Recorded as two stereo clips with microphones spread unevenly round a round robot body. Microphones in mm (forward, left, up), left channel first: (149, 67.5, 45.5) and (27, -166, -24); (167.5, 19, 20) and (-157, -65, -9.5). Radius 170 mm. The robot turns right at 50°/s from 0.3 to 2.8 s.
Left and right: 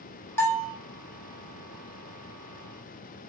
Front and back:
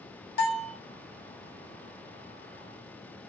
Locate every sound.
0.4 s a bell: 35° right, 1.5 m; by 0.8 s 15° right, 1.5 m